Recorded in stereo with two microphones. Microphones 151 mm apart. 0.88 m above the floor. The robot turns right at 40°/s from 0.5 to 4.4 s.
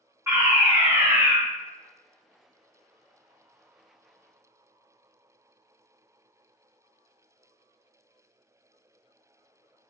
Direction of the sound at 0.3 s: 20° right (ahead or behind).